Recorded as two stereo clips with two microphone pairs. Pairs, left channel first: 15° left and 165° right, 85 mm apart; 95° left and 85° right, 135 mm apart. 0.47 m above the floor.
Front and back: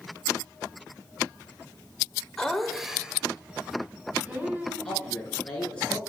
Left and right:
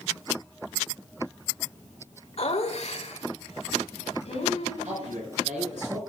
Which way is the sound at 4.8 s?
65° right.